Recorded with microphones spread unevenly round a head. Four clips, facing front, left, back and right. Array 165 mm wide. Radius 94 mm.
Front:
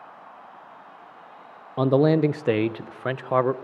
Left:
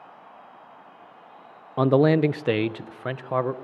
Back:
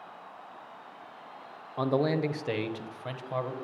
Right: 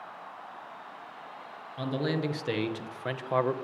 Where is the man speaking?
40° left, 0.9 m; by 3.5 s 10° right, 1.3 m.